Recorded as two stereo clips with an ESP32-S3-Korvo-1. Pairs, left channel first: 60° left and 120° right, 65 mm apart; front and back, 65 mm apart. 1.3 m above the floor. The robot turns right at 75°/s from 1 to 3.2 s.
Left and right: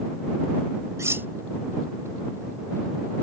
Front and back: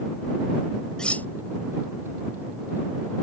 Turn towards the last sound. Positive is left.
turn(degrees=85)